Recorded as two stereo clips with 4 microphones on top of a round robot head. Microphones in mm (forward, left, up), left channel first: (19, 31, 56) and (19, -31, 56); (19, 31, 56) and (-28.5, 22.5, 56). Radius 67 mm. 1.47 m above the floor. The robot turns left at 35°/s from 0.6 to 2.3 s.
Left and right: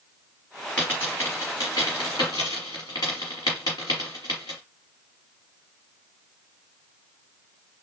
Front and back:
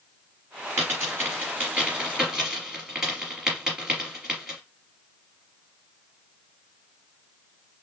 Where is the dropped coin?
165° left, 1.8 m; by 4.6 s 110° left, 1.8 m.